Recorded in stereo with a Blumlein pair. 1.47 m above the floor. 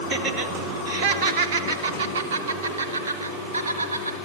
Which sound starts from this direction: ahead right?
Laughter, at 0.1 s.